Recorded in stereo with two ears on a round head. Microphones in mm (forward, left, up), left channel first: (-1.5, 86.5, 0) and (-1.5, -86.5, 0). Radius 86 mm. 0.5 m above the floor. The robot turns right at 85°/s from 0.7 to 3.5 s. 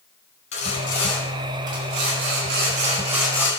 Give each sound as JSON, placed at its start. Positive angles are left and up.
{"t": 0.5, "sound": "sawing", "azimuth_deg": 140, "distance_m": 4.5}